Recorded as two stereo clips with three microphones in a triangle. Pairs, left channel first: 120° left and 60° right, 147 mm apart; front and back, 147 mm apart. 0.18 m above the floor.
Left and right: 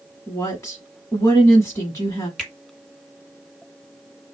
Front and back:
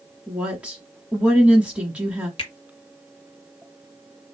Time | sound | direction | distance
0.3 | a woman speaking | 115° left | 1.0 m
2.4 | a finger snap | 35° left | 2 m